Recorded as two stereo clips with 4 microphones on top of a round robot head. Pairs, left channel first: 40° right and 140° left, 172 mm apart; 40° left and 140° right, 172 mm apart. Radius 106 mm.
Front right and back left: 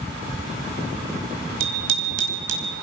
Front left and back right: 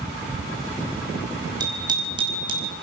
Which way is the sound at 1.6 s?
150° left.